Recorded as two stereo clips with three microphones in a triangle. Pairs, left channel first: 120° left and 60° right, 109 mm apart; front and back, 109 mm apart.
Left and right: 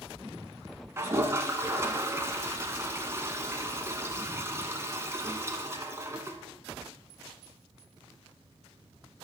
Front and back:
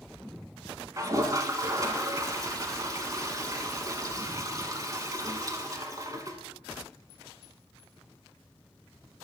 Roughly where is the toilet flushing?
Behind right.